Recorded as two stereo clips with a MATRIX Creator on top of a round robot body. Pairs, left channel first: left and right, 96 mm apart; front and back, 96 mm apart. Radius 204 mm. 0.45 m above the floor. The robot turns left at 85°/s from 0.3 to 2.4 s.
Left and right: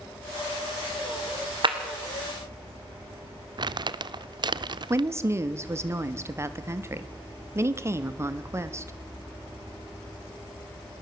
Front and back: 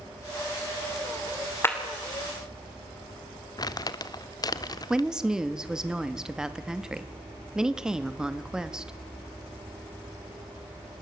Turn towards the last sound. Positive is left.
turn(degrees=-105)